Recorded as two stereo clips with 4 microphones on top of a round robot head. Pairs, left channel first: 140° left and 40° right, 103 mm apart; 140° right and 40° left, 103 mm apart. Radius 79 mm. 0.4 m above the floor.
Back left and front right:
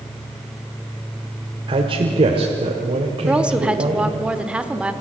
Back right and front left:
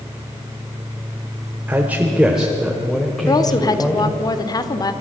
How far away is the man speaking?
About 1.8 m.